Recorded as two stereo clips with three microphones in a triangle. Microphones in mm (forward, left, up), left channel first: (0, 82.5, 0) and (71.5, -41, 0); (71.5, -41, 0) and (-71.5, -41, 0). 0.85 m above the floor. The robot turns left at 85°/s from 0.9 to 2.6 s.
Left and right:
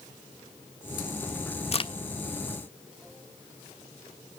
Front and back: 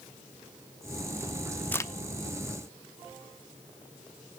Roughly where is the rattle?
No rattle in this recording.